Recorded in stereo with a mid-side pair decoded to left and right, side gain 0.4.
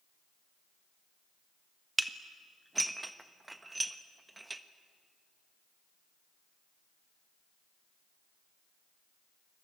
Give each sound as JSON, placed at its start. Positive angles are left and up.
{"t": 2.0, "sound": "dishes clattering", "azimuth_deg": -20, "distance_m": 1.5}